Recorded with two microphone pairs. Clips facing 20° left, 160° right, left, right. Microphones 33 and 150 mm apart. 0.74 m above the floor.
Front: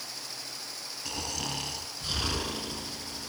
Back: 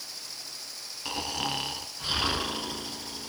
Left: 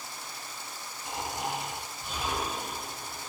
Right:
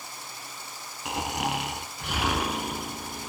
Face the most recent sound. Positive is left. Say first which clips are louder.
# back 4 dB, right 5 dB
turn(degrees=-95)